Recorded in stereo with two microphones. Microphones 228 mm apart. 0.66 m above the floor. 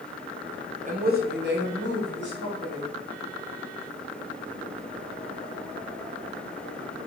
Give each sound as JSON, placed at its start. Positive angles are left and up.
{"t": 0.8, "sound": "a woman speaking", "side_deg": -35, "distance_m": 0.7}